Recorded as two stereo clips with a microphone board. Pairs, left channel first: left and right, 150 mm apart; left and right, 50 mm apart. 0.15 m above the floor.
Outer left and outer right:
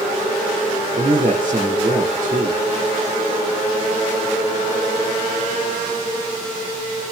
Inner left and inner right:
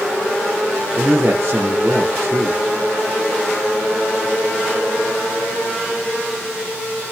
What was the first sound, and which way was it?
A man speaking, 60° right (ahead or behind).